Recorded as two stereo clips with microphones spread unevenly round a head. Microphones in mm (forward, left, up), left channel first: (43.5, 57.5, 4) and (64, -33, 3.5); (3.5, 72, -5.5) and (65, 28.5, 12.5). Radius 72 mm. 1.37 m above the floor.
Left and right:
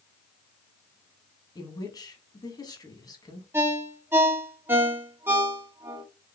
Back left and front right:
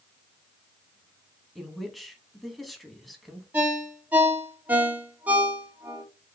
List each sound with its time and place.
1.6 s a woman speaking: 55° left, 1.9 m
3.5 s a ringtone: 30° right, 1.0 m